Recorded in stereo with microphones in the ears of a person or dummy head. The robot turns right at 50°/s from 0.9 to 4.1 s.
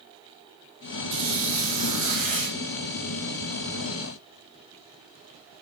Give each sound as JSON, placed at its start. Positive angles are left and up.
{"t": 1.1, "sound": "a squeak", "azimuth_deg": -45, "distance_m": 1.2}